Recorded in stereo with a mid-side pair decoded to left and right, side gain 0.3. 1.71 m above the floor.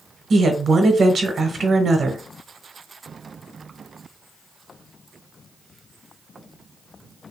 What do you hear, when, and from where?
0.3 s a woman speaking: 65° right, 1.1 m